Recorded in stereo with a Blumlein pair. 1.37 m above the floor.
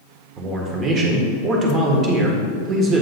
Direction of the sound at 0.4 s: 25° right.